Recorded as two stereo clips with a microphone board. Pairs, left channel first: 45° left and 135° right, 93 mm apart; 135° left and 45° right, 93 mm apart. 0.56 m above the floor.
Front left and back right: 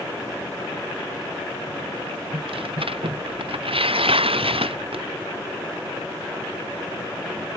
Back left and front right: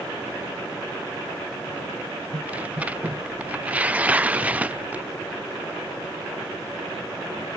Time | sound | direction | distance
2.3 | tearing paper | 120° right | ?